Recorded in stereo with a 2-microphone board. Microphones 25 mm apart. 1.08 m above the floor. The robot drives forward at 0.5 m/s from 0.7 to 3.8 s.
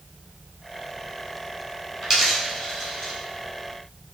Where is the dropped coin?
15° right (ahead or behind), 2.5 m; by 3.1 s 10° right (ahead or behind), 3.5 m.